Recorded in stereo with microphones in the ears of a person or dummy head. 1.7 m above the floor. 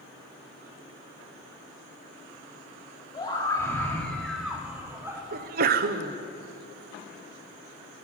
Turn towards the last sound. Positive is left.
turn(degrees=-45)  # may be behind; listen again after turning